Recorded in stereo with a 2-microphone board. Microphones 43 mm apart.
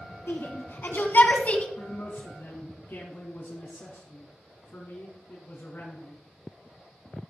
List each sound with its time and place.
0.3 s a shout: 65° left (ahead or behind), 2.5 m; by 1.7 s 30° left (ahead or behind), 1.3 m
1.8 s a man speaking: 50° left (ahead or behind), 2.5 m